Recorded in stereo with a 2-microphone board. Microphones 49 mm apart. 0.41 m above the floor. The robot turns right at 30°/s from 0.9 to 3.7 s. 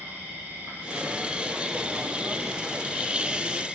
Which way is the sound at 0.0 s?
60° right.